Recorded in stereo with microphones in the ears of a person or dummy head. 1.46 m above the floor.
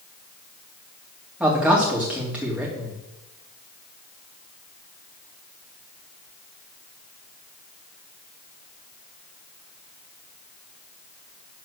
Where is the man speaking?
10° right (ahead or behind), 2.5 m.